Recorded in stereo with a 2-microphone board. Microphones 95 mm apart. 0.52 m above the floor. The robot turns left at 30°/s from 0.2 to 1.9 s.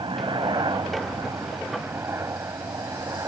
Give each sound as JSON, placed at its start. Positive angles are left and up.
{"t": 0.0, "sound": "a helicopter", "side_deg": -60}